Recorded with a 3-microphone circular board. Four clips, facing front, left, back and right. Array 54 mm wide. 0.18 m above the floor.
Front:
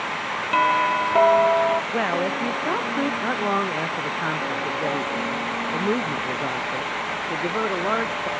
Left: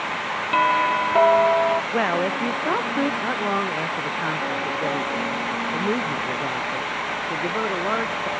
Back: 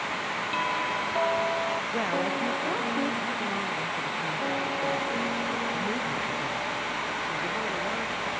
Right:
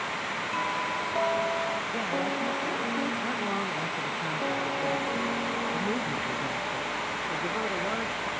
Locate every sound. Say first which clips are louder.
0.5 s a doorbell: left 13 dB, front 11 dB; 50° left
1.9 s a woman speaking: left 8 dB, front 4 dB; 65° left
3.2 s a man speaking: left 7 dB, front 7 dB; 35° left